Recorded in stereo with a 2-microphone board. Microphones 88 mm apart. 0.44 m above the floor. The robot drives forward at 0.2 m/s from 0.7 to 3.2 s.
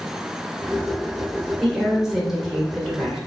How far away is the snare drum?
No snare drum in this recording.